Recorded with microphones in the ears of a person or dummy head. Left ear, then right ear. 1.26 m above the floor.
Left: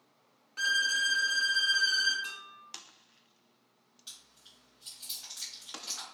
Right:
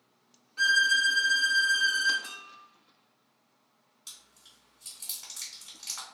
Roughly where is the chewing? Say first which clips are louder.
Right 1 dB; right.